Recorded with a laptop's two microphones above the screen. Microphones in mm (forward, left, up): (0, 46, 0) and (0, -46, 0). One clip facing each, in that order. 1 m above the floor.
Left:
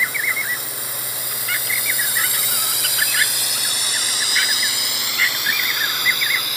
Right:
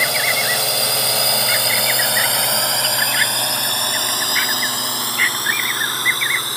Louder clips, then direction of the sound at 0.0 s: Right 4 dB; 80° right.